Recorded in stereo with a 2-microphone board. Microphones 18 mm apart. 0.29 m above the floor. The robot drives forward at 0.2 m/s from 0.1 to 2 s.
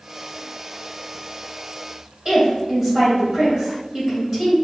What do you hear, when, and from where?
2.2 s a woman speaking: 30° right (ahead or behind), 1.8 m